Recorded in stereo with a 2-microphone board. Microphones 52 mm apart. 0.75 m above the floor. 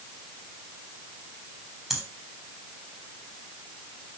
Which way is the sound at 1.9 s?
Centre (ahead or behind).